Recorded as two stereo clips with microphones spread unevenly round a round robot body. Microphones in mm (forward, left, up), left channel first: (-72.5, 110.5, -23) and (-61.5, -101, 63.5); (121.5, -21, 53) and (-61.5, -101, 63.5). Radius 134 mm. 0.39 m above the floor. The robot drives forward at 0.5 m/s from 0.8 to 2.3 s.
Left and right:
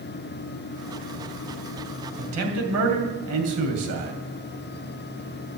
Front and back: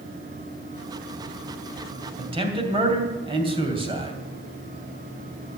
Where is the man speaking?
95° right, 3 m.